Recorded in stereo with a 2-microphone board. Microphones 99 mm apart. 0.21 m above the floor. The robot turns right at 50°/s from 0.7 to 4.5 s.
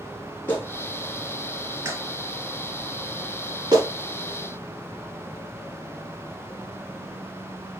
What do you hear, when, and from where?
0.5 s a clap: 20° left (ahead or behind), 1.8 m; by 3.9 s 35° right (ahead or behind), 1.8 m